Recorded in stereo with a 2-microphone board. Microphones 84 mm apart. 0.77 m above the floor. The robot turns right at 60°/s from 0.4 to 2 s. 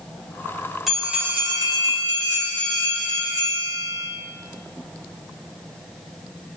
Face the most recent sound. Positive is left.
turn(degrees=-110)